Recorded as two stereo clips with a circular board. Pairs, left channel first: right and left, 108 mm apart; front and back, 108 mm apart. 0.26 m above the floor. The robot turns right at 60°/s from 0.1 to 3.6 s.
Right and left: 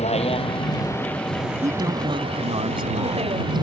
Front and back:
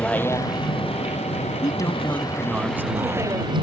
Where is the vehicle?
80° right; by 3.6 s 140° left.